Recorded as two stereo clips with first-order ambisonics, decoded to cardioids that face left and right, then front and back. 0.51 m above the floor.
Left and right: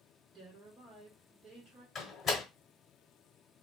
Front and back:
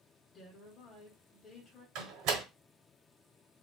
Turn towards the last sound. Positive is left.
turn(degrees=160)